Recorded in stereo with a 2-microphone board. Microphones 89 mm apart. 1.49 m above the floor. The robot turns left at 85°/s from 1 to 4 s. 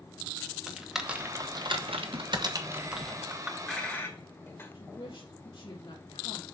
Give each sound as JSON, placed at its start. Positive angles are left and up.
{"t": 0.7, "sound": "typing on a keyboard", "side_deg": -5, "distance_m": 1.2}
{"t": 3.3, "sound": "a clink", "side_deg": -25, "distance_m": 1.4}
{"t": 4.7, "sound": "a woman speaking", "side_deg": 70, "distance_m": 2.5}